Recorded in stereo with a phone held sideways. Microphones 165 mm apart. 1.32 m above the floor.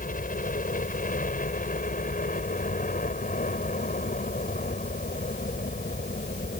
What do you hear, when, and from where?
0.0 s a helicopter: 60° left (ahead or behind)